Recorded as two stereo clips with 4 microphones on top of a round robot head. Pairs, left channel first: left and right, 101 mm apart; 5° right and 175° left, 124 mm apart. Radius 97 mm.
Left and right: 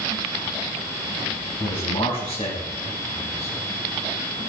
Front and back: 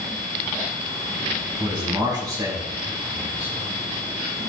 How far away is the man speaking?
About 4.5 m.